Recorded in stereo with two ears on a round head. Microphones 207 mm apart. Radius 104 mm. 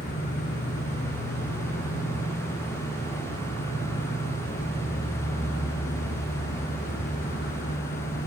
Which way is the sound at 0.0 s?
40° left (ahead or behind).